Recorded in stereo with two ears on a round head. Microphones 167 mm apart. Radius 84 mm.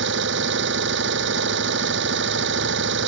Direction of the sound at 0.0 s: 70° right (ahead or behind).